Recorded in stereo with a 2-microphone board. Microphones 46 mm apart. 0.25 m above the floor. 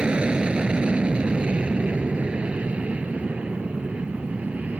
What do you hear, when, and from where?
0.0 s an aircraft: 20° right (ahead or behind); by 4.8 s 30° right (ahead or behind)